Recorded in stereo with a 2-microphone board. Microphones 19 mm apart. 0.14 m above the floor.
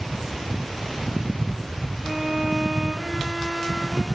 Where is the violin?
65° left (ahead or behind), 4 m.